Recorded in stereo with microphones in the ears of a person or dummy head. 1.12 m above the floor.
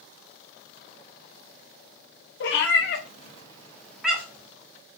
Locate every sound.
2.4 s a cat meowing: 70° left (ahead or behind), 0.8 m; by 4.5 s 10° right (ahead or behind), 1.1 m